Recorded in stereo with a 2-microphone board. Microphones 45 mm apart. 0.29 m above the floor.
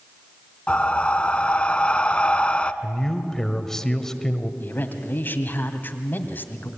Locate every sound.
0.7 s breathing: 25° left (ahead or behind), 0.8 m
2.8 s a man speaking: 10° left (ahead or behind), 1.6 m
4.6 s a man speaking: 45° left (ahead or behind), 2 m